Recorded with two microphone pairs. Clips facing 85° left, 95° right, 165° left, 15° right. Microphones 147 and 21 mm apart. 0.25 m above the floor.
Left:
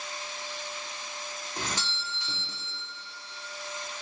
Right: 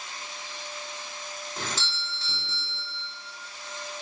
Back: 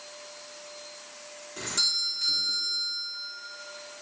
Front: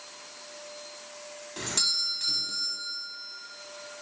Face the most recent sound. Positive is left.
turn(degrees=15)